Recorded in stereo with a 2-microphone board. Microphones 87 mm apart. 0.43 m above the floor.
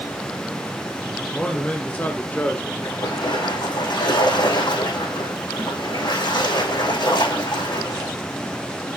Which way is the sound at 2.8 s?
60° left (ahead or behind).